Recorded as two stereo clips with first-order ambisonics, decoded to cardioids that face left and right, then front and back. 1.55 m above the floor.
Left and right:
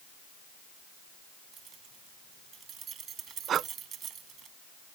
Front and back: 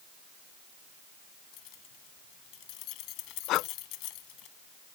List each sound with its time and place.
1.5 s keys jangling: 30° right
3.5 s breathing: 35° right